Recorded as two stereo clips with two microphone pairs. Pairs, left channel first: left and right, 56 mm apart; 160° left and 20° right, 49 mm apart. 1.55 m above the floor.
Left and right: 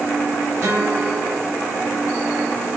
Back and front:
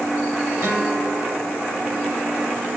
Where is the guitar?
40° right, 4.5 m.